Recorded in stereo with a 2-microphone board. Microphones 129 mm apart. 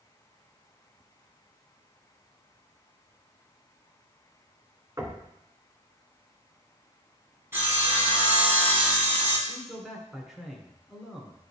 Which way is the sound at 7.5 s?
20° right (ahead or behind).